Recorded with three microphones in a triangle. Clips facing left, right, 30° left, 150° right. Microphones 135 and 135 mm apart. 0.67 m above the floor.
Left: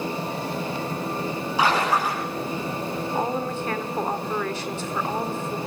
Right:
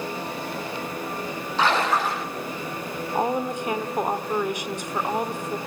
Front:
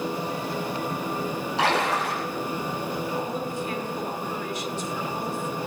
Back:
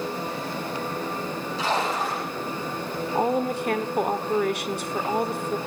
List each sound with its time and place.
1.6 s a splash: 10° left, 9.5 m
3.1 s a woman speaking: 165° right, 1.8 m